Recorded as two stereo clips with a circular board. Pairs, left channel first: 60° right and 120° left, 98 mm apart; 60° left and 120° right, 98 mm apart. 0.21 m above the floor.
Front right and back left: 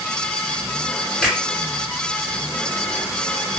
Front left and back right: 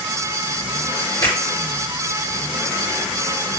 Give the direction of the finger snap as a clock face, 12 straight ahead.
11 o'clock.